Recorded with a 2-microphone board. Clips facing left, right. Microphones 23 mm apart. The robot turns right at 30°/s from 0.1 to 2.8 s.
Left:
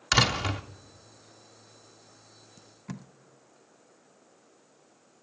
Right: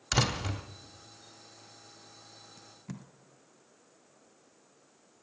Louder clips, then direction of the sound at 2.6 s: Left 4 dB; 15° left (ahead or behind).